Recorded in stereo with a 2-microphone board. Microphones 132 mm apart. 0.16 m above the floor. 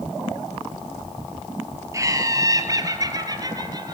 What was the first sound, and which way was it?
Laughter, 25° right (ahead or behind).